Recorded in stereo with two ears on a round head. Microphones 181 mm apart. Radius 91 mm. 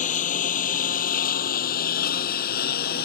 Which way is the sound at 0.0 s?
40° left (ahead or behind).